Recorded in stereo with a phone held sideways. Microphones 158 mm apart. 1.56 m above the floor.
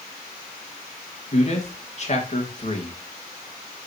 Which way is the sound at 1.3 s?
45° left (ahead or behind).